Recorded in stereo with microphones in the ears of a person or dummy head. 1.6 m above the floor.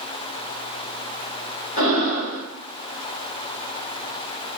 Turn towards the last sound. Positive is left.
turn(degrees=35)  # may be behind; listen again after turning